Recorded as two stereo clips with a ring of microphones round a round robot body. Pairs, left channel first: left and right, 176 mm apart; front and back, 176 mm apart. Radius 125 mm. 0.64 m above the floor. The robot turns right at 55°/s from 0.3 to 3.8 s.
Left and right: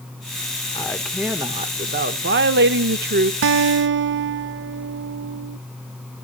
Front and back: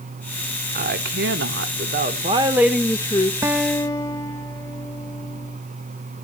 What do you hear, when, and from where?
0.8 s a woman speaking: 160° left, 1.7 m; by 3.3 s 60° right, 1.7 m
3.4 s a guitar: 100° right, 0.9 m; by 5.6 s 80° right, 0.9 m